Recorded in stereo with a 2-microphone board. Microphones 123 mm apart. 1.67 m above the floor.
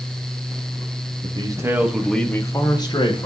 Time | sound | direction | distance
1.2 | a man speaking | 45° right (ahead or behind) | 1.4 m